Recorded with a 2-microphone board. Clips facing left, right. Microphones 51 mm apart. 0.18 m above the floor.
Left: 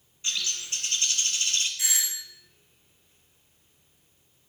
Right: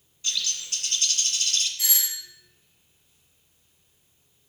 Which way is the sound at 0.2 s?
20° left (ahead or behind).